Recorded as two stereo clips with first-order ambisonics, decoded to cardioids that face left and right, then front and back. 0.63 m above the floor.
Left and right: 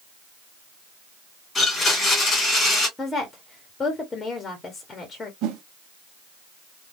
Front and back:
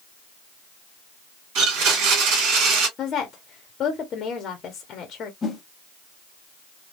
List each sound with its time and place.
1.6 s a blender: 165° left, 2 m
3.0 s a woman speaking: 25° left, 1.1 m
5.4 s a whoosh: 70° right, 0.7 m